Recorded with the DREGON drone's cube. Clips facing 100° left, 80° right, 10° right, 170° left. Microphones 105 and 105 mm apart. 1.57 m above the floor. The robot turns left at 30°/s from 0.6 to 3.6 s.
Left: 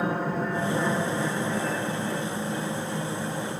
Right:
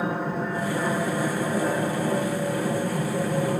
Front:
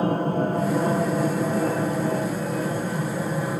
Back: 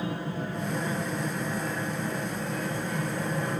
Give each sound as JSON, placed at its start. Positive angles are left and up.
{"t": 0.0, "sound": "an aircraft", "azimuth_deg": 10}